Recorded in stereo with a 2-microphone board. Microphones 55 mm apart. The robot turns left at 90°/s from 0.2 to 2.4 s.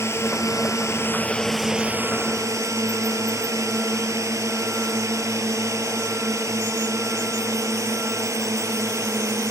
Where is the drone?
55° left (ahead or behind); by 9.5 s 65° right (ahead or behind).